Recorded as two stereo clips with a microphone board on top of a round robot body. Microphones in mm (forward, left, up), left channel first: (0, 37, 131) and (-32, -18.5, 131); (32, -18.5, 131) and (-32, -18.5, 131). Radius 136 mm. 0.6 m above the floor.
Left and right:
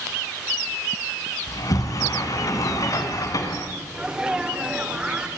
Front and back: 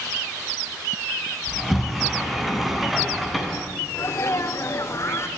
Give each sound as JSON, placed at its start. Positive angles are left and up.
{"t": 1.5, "sound": "a sliding door", "azimuth_deg": 90, "distance_m": 2.5}
{"t": 3.9, "sound": "a sneeze", "azimuth_deg": -45, "distance_m": 2.5}